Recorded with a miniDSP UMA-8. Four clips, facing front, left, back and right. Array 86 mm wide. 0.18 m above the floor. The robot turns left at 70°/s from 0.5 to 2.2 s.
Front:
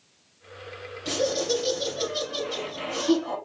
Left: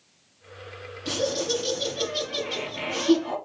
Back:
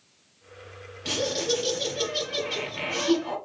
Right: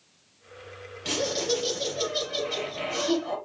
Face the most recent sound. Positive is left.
turn(degrees=150)